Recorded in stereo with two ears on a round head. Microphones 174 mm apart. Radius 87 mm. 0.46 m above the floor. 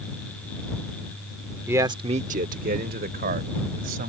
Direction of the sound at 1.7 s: 10° right (ahead or behind).